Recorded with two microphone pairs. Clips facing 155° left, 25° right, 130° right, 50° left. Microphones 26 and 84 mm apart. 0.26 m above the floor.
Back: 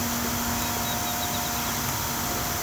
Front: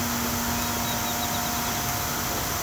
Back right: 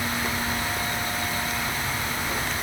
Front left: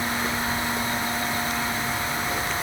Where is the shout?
I don't hear a shout.